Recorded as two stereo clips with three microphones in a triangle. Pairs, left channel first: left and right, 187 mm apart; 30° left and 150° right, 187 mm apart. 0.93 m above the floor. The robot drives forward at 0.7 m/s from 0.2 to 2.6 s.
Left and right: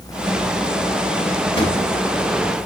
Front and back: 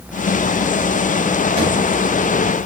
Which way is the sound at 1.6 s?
150° left.